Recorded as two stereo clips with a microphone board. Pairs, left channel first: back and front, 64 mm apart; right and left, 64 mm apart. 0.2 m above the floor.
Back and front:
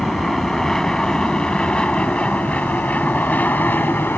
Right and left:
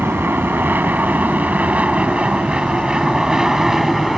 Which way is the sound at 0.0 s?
95° left.